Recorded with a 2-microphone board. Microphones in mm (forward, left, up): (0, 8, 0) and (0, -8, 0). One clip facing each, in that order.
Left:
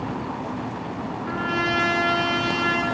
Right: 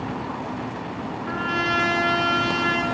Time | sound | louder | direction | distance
1.2 | a trumpet | even | 10° right (ahead or behind) | 0.7 m